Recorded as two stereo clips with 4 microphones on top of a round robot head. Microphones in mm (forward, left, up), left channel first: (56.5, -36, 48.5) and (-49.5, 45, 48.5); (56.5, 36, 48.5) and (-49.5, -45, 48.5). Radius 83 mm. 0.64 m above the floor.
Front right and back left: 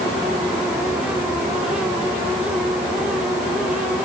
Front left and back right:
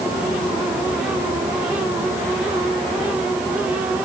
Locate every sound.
Only background noise.